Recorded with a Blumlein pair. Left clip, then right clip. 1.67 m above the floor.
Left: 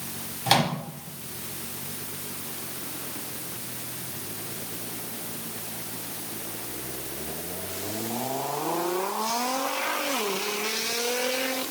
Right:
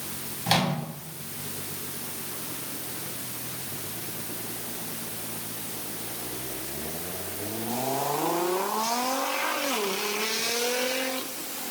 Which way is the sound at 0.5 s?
15° left.